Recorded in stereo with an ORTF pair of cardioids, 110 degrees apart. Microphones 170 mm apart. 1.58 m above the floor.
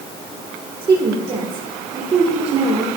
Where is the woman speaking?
30° right, 1.8 m.